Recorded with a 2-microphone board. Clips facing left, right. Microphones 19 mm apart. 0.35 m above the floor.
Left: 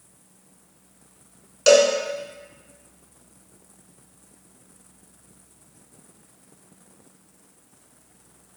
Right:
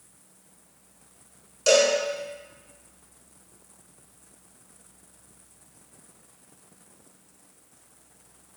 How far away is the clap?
No clap in this recording.